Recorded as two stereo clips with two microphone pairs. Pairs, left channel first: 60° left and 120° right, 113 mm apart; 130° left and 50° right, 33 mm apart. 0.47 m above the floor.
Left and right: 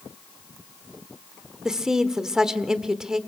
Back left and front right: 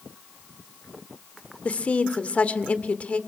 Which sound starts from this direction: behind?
A woman speaking, at 1.6 s.